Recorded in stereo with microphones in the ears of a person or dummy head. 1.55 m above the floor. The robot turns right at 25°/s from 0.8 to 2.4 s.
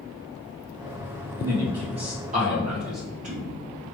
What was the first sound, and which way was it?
A man speaking, 10° right (ahead or behind).